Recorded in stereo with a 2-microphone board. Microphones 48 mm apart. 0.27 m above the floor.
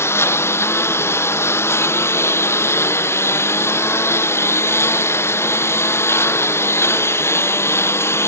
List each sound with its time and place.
0.0 s a lawn mower: 60° left (ahead or behind)